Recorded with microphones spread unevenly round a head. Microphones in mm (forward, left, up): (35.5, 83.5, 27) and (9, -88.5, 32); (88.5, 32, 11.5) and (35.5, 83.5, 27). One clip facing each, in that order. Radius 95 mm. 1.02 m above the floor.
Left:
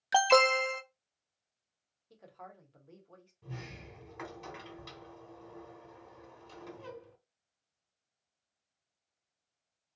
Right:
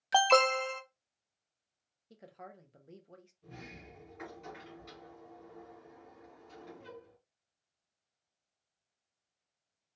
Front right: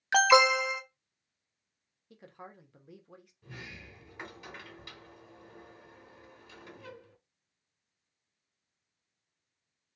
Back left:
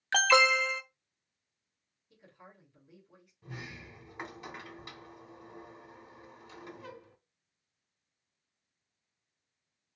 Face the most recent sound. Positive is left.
turn(degrees=85)